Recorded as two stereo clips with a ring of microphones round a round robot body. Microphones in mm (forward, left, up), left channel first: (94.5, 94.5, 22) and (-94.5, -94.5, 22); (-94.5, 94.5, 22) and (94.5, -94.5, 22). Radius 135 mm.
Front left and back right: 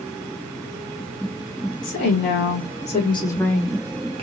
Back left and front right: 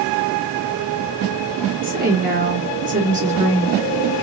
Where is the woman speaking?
10° left, 1.6 m; by 4.2 s 110° right, 1.0 m.